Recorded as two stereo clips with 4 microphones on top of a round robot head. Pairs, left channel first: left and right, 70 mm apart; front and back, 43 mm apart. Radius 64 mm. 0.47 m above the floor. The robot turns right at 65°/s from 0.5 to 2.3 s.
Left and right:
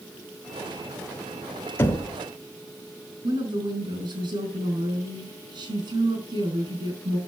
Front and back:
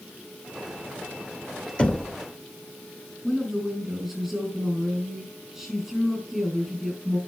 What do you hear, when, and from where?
1.8 s knocking: 50° left, 1.3 m; by 2.1 s 70° left, 1.3 m
3.2 s a woman speaking: 95° right, 4.5 m